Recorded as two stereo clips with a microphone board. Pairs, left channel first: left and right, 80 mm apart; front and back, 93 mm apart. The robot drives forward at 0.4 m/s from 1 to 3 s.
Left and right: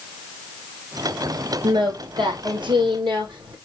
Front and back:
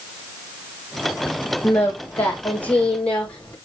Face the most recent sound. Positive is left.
turn(degrees=-80)